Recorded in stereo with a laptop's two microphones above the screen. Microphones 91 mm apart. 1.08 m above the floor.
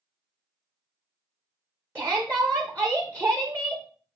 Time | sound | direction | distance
1.9 | a shout | 25° right (ahead or behind) | 0.5 m